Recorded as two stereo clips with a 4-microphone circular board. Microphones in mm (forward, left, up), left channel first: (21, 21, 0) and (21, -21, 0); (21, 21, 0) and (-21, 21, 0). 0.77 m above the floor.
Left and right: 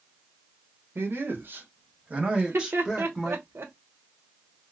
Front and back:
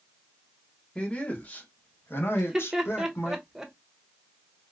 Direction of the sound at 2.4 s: 100° right.